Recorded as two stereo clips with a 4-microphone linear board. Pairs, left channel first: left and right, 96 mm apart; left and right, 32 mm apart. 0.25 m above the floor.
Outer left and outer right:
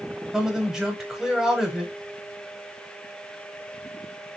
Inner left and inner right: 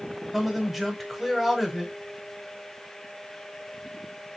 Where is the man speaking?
5° right (ahead or behind), 1.1 m.